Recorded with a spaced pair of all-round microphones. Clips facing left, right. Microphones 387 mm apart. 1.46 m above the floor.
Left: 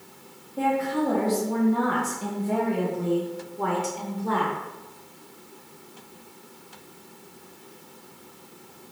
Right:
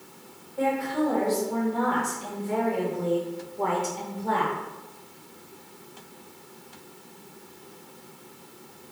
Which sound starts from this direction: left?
A woman speaking, at 0.6 s.